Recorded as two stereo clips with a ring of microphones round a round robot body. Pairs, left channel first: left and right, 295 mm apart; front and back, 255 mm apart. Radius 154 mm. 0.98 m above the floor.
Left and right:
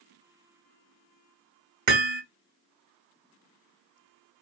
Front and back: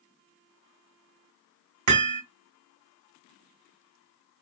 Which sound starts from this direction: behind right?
Hammering, at 1.9 s.